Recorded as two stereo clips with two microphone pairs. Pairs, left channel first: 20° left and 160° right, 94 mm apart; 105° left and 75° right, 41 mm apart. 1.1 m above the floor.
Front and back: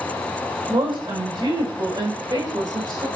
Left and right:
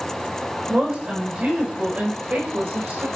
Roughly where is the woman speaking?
Behind right.